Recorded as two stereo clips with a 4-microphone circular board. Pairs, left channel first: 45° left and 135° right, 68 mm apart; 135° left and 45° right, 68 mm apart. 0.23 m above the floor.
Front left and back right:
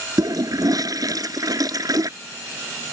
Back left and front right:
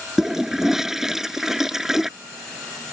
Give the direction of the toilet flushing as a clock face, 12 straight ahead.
4 o'clock.